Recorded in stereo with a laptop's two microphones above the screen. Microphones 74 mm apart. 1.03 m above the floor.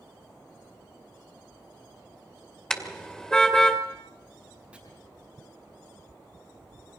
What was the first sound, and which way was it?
A car horn, 5° left (ahead or behind).